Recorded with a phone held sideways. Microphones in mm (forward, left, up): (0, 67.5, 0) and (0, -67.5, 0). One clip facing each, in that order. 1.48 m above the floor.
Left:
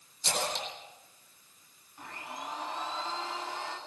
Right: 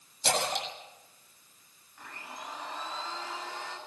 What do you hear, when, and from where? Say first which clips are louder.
0.2 s a splash: right 3 dB; 70° right (ahead or behind), 8 m
2.0 s a blender: left 3 dB; 20° left (ahead or behind), 9.5 m